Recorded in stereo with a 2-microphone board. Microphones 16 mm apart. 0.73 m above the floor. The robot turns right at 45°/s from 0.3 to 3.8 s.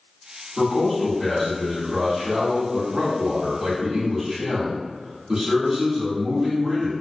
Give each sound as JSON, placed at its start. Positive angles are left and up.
{"t": 0.6, "sound": "a man speaking", "azimuth_deg": 155, "distance_m": 1.6}